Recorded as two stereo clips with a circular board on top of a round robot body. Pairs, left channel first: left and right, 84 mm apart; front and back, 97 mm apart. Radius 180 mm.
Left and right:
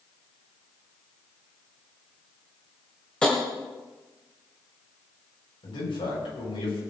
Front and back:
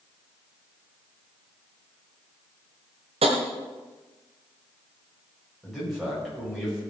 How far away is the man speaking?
About 7.5 m.